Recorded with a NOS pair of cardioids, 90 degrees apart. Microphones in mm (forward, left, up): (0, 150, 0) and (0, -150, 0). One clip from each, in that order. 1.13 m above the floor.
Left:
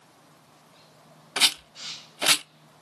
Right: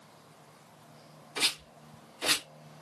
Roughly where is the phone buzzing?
I don't hear a phone buzzing.